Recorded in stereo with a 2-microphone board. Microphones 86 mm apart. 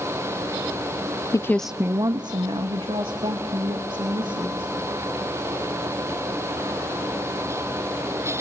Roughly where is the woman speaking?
Left.